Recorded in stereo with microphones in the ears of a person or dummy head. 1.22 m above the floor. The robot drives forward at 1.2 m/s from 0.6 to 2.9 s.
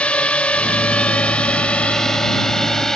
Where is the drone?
5° left (ahead or behind).